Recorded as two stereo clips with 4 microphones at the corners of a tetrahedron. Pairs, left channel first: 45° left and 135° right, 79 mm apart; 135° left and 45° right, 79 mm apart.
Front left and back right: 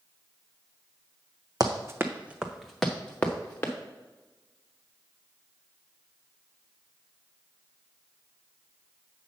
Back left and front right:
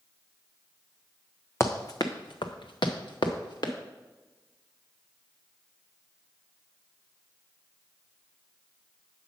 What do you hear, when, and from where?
1.6 s running footsteps: 170° right, 0.8 m; by 3.7 s 110° left, 1.4 m